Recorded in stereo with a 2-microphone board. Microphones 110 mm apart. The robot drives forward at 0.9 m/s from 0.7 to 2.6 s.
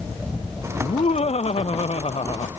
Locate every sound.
0.8 s laughter: 75° left (ahead or behind); by 2.5 s 65° left (ahead or behind)